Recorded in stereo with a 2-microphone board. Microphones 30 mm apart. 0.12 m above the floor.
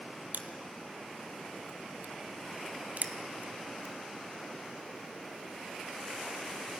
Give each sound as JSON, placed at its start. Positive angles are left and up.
{"t": 0.3, "sound": "crushing", "side_deg": -65, "distance_m": 1.0}